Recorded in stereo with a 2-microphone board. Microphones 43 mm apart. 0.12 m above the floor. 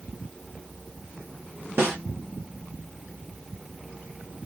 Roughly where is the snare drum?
Right.